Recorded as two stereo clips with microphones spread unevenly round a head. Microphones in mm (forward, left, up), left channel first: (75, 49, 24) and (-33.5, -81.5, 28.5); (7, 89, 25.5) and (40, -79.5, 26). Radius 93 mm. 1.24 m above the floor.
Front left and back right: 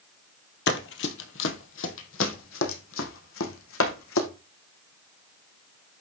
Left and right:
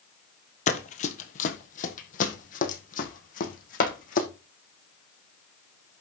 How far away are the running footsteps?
About 2 m.